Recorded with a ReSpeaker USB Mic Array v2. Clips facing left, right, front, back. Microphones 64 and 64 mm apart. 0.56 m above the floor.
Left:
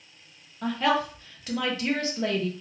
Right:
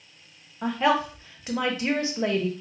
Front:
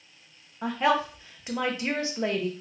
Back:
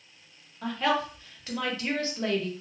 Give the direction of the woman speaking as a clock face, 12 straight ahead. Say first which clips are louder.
Right 2 dB, front 3 dB; 2 o'clock.